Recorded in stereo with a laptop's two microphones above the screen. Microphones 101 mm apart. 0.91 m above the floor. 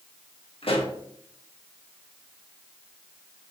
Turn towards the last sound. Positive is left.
turn(degrees=65)  # may be behind; listen again after turning